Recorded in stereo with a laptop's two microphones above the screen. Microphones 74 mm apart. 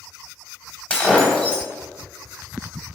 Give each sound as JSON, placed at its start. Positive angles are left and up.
{"t": 0.9, "sound": "breaking glass", "side_deg": 15, "distance_m": 2.5}